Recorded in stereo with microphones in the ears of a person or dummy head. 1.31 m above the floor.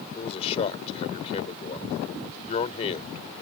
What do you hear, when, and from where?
0.1 s a man speaking: 35° left (ahead or behind)